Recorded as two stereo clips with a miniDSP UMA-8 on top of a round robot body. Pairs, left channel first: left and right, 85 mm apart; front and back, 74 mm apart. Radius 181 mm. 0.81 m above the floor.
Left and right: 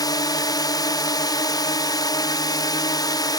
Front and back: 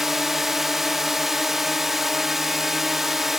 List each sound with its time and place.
0.0 s a drone: 95° left